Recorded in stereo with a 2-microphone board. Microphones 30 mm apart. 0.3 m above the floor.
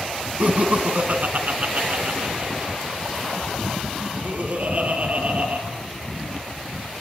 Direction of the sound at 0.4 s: 50° right (ahead or behind).